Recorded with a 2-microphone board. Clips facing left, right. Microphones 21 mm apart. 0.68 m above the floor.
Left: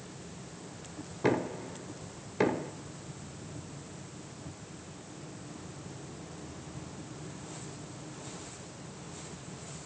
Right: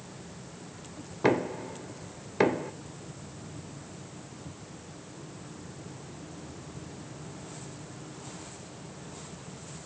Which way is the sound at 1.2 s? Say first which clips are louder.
Right 3 dB; 25° right (ahead or behind).